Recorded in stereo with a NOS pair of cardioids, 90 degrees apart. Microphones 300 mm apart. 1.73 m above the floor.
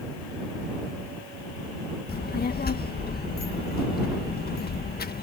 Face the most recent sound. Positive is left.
turn(degrees=35)